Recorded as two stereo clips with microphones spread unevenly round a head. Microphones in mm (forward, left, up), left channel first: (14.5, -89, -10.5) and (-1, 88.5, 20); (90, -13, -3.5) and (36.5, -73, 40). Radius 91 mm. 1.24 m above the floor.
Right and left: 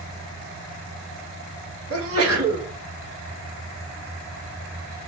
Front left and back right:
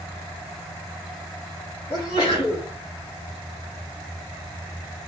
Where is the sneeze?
105° left, 4.5 m.